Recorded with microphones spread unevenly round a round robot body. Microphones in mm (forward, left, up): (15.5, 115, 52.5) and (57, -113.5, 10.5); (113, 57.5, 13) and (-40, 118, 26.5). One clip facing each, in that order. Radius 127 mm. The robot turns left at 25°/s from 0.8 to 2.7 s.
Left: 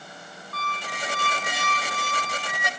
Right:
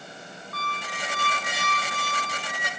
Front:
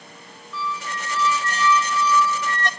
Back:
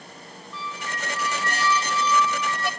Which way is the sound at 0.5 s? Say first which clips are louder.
Left 2 dB, front 5 dB; 120° left.